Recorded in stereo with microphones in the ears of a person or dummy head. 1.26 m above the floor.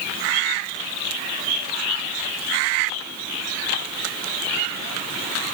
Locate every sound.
Only background noise.